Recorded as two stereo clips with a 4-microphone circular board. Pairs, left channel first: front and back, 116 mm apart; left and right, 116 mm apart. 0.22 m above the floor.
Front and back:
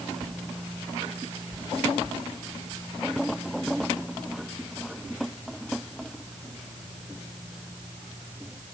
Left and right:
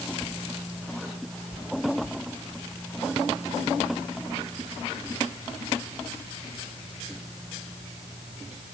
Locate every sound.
Only background noise.